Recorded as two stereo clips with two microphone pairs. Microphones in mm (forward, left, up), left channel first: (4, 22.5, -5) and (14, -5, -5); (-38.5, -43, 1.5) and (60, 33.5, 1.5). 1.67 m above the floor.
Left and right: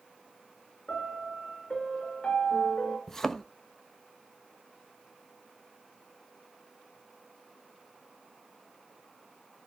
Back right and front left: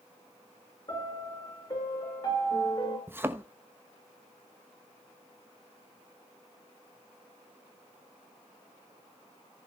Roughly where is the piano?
Behind.